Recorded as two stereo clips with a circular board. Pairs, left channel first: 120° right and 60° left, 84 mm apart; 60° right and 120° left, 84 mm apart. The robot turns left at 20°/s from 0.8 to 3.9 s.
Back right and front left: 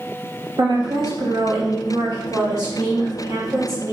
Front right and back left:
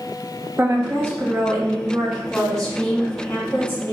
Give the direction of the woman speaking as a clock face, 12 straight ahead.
10 o'clock.